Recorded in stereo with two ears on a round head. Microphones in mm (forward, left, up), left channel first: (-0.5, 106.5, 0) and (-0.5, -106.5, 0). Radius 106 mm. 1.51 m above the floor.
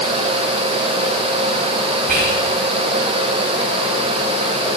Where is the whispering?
35° right (ahead or behind), 5 m.